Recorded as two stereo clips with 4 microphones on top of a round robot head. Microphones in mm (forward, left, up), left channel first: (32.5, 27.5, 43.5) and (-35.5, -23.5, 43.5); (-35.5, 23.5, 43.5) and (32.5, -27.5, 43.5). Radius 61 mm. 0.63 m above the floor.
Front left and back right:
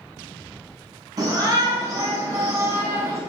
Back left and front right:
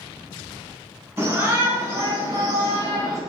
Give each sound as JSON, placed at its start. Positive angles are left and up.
{"t": 1.2, "sound": "a shout", "azimuth_deg": -100, "distance_m": 7.0}